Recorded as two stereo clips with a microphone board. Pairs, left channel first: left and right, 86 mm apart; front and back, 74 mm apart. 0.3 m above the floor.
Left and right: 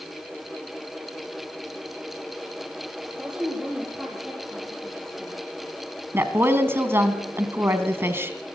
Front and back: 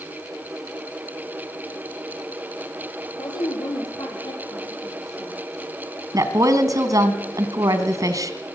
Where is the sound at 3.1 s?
10° right, 7.5 m; by 5.3 s straight ahead, 8.5 m.